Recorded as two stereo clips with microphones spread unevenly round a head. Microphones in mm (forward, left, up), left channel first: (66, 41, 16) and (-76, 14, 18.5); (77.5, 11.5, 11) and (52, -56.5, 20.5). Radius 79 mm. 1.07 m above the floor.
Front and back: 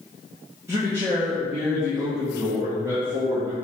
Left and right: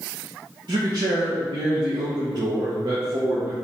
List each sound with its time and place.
0.7 s a man speaking: 95° right, 0.9 m